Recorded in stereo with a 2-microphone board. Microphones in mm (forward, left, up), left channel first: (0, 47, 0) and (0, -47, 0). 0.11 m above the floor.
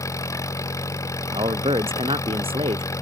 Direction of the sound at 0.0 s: 35° left (ahead or behind).